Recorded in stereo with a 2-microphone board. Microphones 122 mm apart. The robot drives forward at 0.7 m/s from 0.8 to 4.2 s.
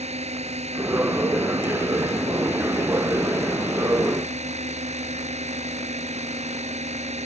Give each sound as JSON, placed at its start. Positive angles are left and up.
{"t": 0.0, "sound": "a drone", "side_deg": -60}